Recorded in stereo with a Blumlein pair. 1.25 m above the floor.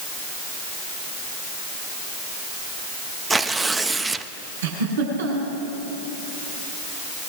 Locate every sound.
3.3 s tearing paper: 10° right, 0.9 m
4.6 s a giggle: 65° right, 6 m